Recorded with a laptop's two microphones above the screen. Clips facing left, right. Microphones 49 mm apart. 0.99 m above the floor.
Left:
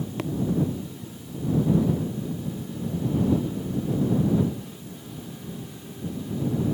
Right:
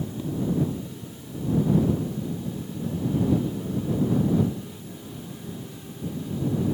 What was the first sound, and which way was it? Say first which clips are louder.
Tapping: left 4 dB; 80° left.